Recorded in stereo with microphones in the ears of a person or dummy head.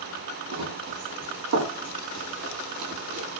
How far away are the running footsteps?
About 5 m.